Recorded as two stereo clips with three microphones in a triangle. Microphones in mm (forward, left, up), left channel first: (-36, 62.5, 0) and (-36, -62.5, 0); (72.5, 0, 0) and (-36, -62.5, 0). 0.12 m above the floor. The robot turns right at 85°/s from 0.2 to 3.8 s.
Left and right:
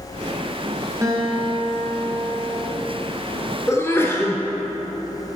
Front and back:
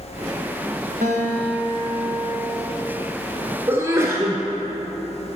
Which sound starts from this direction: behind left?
A sneeze, at 3.7 s.